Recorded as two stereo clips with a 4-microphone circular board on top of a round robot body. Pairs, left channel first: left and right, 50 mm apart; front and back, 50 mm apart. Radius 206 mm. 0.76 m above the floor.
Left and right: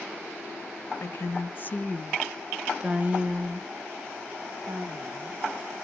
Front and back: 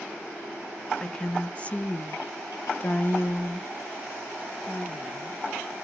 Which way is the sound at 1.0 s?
75° left.